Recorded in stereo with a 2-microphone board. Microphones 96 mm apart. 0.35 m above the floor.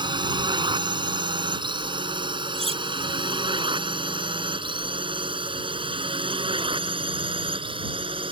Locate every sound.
0.0 s a drone: 50° right (ahead or behind); by 8.3 s 65° right (ahead or behind)
2.5 s cutlery clinking: 80° right